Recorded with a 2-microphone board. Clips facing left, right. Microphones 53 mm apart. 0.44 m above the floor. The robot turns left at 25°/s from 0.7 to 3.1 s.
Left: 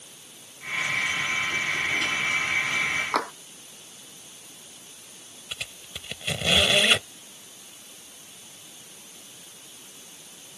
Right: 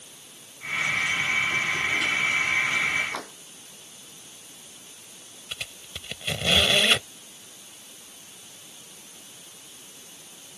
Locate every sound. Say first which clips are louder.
3.1 s tapping: left 9 dB; 80° left
5.5 s a squeak: even; 10° left (ahead or behind)